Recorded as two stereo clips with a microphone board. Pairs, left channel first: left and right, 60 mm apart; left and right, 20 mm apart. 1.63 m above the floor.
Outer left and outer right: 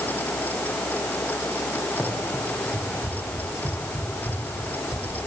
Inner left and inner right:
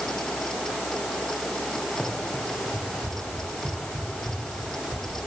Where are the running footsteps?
5° right (ahead or behind), 7 m; by 5.2 s 5° left (ahead or behind), 9.5 m.